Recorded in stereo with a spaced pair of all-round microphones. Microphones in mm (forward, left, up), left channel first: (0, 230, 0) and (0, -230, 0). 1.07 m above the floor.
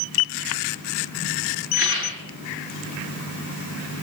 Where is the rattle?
55° right (ahead or behind), 9.5 m.